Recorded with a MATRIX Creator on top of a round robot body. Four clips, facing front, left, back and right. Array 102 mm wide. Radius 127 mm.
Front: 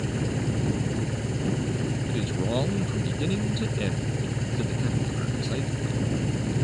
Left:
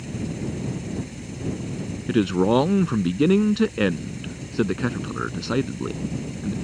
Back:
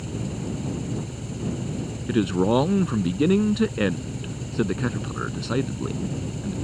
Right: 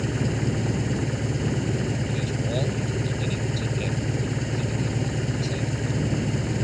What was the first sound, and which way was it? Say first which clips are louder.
An engine running: right 4 dB, front 3 dB; 65° right.